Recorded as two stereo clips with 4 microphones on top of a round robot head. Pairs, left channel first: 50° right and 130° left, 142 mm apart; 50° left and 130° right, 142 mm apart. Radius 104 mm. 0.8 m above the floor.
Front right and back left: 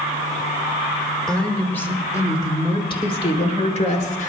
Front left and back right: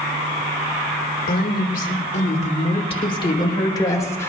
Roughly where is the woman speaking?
Ahead left.